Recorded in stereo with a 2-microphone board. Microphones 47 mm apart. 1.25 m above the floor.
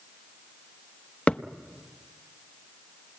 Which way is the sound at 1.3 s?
25° left (ahead or behind).